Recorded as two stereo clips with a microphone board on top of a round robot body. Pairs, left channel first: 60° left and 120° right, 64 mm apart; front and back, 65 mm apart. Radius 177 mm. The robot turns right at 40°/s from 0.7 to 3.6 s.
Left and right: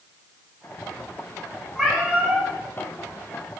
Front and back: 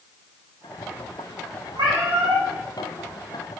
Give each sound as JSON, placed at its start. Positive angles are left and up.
{"t": 1.8, "sound": "a cat meowing", "azimuth_deg": 150, "distance_m": 1.4}